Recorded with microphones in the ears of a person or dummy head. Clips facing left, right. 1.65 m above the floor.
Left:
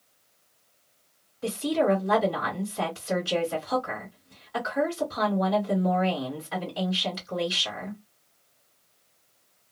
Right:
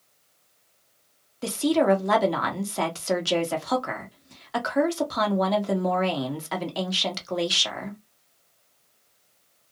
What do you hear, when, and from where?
1.4 s a woman speaking: 75° right (ahead or behind), 1.1 m